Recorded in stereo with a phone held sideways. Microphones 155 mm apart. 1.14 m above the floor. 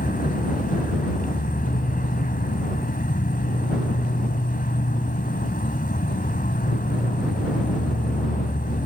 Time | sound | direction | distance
0.0 | an insect | 70° left (ahead or behind) | ?